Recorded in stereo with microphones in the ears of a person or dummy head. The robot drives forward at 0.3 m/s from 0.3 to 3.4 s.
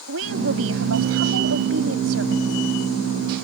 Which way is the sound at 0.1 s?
85° right.